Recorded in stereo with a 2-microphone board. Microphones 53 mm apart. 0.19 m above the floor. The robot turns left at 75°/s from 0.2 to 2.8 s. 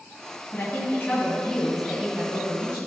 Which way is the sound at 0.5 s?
90° left.